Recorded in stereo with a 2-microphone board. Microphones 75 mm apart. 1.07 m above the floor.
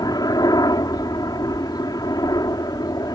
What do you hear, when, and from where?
0.0 s a helicopter: 60° left (ahead or behind)